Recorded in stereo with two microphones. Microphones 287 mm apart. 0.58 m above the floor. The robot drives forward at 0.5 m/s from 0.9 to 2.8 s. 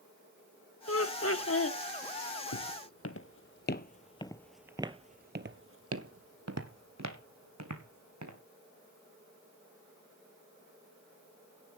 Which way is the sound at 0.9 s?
50° left (ahead or behind).